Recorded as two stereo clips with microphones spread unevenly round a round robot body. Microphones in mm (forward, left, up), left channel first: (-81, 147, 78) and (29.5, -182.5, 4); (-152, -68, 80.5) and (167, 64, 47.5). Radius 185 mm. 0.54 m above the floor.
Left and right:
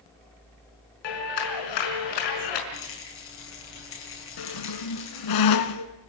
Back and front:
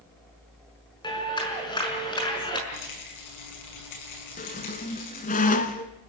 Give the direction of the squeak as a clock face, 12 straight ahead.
8 o'clock.